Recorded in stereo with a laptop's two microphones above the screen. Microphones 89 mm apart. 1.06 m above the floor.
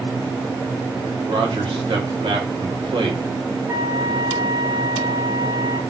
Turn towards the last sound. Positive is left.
turn(degrees=-30)  # may be behind; listen again after turning